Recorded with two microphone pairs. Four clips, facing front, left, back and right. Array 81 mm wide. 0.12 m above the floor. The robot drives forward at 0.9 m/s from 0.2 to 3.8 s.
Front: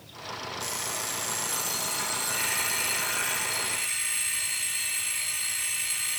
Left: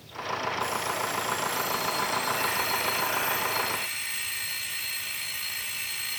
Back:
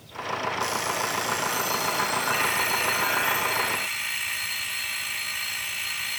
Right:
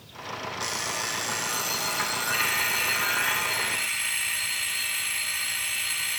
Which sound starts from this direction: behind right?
An alarm clock, at 0.6 s.